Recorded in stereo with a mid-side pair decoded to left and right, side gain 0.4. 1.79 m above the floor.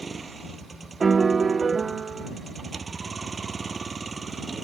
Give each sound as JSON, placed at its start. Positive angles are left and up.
{"t": 0.0, "sound": "a vehicle", "azimuth_deg": -35}
{"t": 1.0, "sound": "a piano", "azimuth_deg": -35}